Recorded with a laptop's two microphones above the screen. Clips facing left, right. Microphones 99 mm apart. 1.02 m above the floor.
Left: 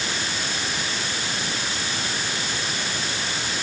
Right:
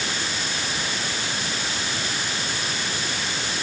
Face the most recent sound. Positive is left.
No sound to turn to.